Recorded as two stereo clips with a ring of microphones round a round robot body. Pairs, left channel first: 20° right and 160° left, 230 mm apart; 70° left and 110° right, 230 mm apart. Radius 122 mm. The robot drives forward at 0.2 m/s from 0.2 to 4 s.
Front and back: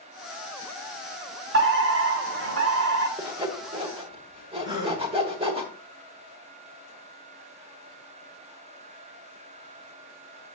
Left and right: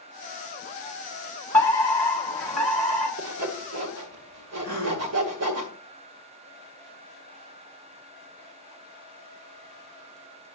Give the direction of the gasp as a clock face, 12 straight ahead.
4 o'clock.